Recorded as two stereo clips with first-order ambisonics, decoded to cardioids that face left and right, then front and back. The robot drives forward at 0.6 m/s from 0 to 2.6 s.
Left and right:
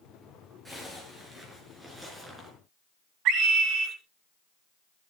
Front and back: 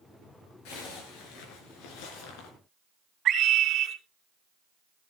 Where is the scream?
125° right, 3.5 m.